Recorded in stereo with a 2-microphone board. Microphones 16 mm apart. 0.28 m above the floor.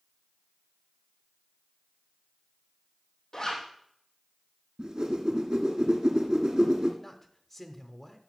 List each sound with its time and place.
3.3 s a zipper: 35° left (ahead or behind), 3 m
4.8 s a whoosh: 55° right (ahead or behind), 2.5 m
7.0 s a man speaking: 5° left (ahead or behind), 1.1 m